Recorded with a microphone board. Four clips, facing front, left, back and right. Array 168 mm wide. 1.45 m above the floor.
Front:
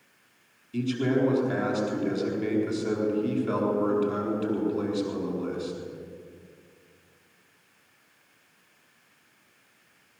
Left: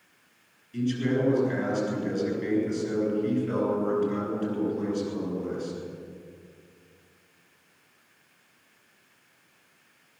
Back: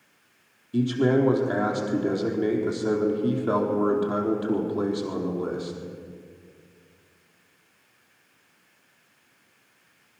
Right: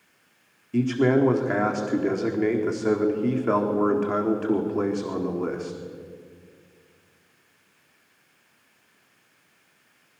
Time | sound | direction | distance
0.7 | a man speaking | 115° right | 4 m